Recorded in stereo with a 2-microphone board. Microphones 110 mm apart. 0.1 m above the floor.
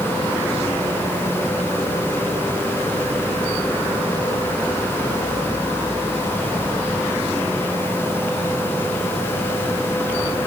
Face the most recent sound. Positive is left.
No sound to turn to.